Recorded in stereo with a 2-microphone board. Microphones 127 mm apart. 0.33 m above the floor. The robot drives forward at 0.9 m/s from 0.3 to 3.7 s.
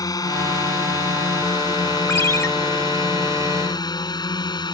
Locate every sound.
0.0 s a drone: 30° left (ahead or behind); by 4.7 s 35° left (ahead or behind)
2.1 s a ringtone: 20° left (ahead or behind); by 2.5 s 25° left (ahead or behind)